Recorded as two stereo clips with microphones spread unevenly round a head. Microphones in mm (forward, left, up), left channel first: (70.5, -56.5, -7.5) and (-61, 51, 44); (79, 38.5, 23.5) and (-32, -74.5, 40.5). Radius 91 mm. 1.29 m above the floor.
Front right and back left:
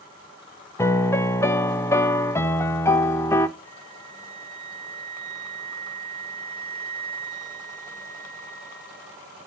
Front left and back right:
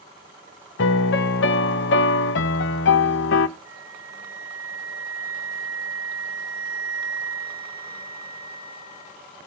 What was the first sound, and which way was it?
A piano, 40° left.